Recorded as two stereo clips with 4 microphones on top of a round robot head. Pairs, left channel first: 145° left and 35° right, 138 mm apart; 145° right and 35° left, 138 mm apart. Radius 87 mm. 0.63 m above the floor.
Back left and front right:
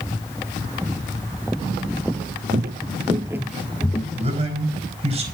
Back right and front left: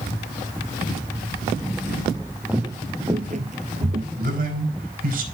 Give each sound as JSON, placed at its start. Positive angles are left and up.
{"t": 2.5, "sound": "footsteps", "azimuth_deg": -50, "distance_m": 1.0}
{"t": 4.2, "sound": "a man speaking", "azimuth_deg": 15, "distance_m": 4.0}